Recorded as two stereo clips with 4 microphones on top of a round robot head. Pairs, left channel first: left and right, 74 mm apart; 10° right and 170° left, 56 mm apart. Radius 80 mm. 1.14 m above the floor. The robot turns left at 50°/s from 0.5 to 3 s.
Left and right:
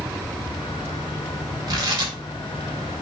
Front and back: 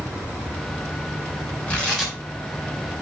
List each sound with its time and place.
1.7 s tearing paper: 75° right, 3 m; by 2.1 s 100° right, 3 m